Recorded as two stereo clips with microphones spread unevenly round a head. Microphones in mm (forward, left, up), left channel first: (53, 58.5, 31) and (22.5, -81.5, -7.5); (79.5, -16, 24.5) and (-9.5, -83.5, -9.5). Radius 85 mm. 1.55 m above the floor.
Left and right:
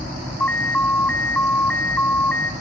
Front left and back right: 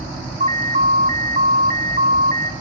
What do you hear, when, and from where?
0.4 s an alarm: 155° left, 0.6 m